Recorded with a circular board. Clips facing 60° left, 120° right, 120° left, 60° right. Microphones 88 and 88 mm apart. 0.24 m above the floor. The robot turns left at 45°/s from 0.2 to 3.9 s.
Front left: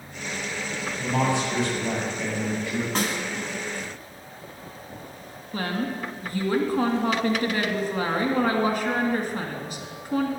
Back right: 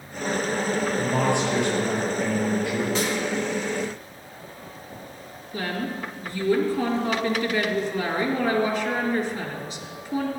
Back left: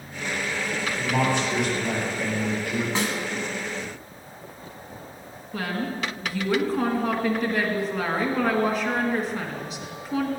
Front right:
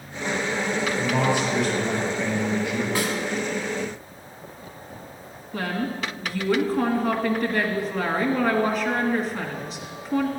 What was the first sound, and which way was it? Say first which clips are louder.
A man speaking: front left 2 dB, even; 120° right.